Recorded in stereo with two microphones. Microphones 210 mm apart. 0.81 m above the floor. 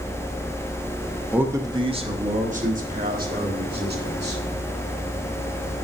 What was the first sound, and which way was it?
A man speaking, 5° right (ahead or behind).